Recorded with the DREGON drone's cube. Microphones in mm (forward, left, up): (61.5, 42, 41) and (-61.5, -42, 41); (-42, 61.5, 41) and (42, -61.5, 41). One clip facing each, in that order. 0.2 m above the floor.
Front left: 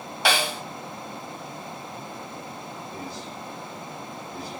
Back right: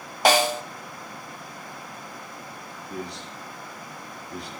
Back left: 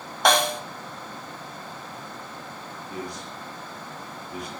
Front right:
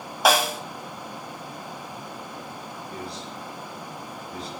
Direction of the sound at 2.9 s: 160° right.